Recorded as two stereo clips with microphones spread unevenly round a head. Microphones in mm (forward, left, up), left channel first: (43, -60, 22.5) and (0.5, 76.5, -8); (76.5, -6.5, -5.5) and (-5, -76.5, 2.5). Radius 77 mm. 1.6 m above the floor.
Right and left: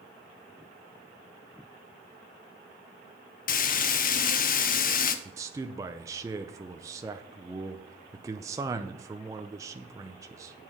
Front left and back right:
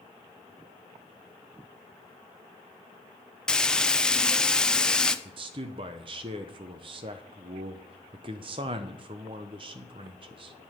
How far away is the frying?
About 0.7 m.